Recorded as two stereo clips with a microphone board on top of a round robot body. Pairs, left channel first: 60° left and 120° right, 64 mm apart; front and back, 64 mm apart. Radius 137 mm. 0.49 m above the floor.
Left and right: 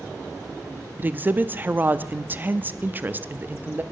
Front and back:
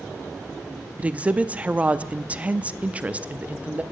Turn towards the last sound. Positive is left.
turn(degrees=-135)